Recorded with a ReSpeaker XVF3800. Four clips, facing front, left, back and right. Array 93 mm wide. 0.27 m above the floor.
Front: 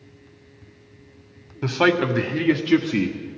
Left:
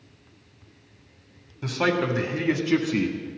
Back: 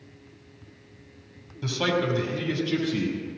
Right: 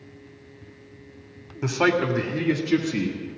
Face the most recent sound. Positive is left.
turn(degrees=40)